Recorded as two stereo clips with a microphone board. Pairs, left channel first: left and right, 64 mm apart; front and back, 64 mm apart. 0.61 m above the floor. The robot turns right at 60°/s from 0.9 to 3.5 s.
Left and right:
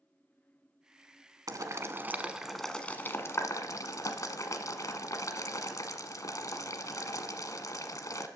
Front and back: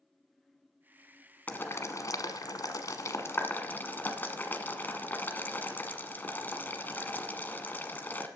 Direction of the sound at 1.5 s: 65° right.